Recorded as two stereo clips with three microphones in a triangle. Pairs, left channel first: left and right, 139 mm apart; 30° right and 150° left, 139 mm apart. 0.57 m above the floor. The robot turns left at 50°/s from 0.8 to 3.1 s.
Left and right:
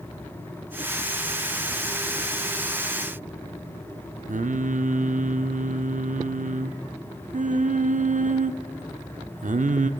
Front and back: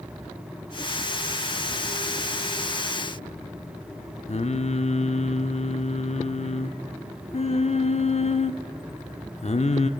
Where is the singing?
70° right, 0.5 m.